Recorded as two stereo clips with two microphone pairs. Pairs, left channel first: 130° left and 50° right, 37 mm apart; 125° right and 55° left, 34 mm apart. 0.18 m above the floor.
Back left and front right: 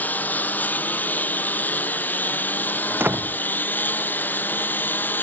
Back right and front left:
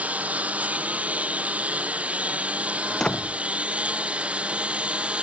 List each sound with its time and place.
0.0 s a lawn mower: 95° left; by 5.2 s 105° left
2.9 s a door slam: 60° right